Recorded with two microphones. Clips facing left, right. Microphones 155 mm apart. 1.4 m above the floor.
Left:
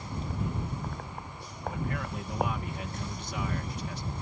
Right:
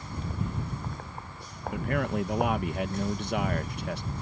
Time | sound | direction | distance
1.7 | a man speaking | 65° right (ahead or behind) | ?